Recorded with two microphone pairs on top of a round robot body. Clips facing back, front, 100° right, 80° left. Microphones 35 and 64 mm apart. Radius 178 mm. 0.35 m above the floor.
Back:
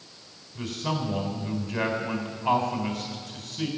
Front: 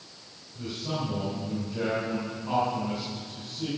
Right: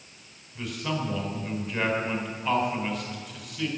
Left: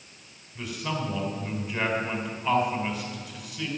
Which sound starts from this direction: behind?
A man speaking, at 0.6 s.